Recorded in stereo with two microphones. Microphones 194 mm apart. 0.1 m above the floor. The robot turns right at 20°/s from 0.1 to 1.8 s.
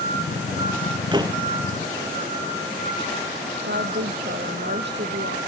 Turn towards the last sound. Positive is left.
turn(degrees=-65)  # may be behind; listen again after turning